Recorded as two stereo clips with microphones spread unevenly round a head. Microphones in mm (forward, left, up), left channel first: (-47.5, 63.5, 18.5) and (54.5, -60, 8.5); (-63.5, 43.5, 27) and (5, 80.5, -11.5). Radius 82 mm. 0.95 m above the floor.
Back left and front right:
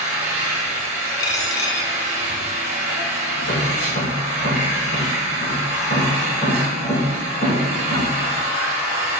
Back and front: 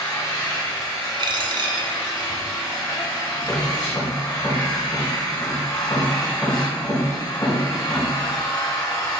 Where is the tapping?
150° left, 2.5 m.